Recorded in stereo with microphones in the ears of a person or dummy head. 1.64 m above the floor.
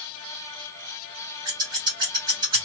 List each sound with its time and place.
1.4 s scissors: 25° right (ahead or behind), 1.8 m